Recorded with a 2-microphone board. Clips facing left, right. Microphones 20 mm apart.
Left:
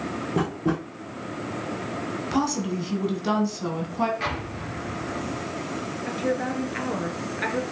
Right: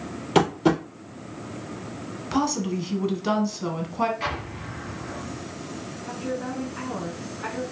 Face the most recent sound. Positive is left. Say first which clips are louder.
# left 4 dB
turn(degrees=65)  # may be behind; listen again after turning